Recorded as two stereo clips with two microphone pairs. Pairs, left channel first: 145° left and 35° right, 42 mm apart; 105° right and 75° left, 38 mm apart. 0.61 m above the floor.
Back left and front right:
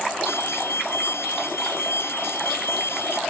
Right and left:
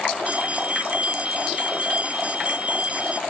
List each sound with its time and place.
0.3 s an alarm: 130° left